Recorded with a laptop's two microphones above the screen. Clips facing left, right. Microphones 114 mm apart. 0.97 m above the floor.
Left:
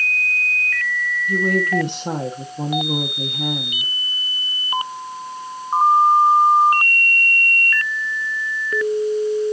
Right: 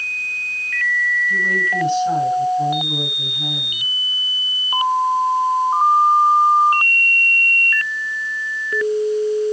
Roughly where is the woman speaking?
Left.